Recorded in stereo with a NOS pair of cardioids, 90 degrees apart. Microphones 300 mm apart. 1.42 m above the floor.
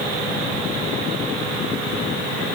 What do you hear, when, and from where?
Only background noise.